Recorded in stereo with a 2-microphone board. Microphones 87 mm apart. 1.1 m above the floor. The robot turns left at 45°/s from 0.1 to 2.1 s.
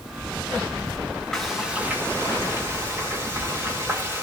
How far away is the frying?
About 1.7 m.